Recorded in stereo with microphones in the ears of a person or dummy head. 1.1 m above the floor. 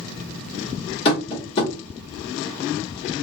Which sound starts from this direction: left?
Tapping, at 1.1 s.